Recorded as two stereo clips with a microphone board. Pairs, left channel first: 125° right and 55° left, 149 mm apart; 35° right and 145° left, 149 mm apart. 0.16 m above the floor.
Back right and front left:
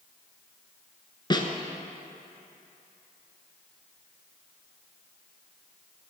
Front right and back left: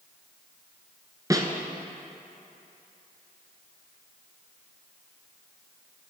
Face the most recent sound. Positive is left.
turn(degrees=-160)